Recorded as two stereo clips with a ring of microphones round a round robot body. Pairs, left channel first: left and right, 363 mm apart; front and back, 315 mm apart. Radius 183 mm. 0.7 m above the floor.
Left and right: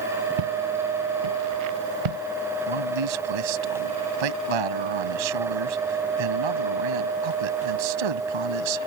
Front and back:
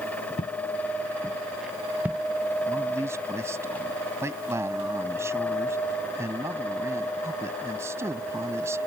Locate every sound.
0.4 s footsteps: 75° right; by 2.2 s 95° right
2.7 s a man speaking: 95° right